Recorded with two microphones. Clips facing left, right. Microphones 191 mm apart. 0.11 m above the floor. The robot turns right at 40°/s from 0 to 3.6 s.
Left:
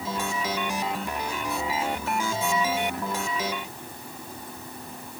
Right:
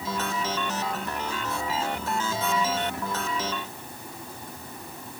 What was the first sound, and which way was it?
Only background noise.